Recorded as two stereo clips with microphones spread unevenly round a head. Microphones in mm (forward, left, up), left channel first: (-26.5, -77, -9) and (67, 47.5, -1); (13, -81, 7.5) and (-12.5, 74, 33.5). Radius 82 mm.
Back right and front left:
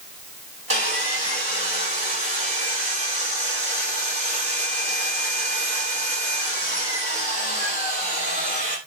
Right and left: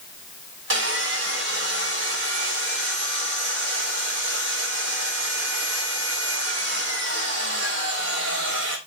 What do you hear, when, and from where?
0.7 s sawing: 105° left, 3.5 m